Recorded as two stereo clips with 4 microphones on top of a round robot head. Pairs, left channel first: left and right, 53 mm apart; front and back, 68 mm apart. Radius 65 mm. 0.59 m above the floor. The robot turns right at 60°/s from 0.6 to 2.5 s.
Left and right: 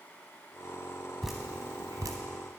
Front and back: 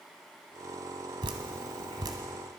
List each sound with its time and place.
1.2 s dripping: 175° left, 0.8 m; by 2.2 s 125° right, 0.8 m